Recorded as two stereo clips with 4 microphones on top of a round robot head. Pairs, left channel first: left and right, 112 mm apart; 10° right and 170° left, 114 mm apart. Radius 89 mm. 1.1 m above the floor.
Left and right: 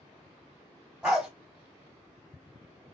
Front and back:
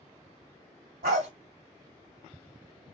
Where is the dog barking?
170° right, 2.5 m.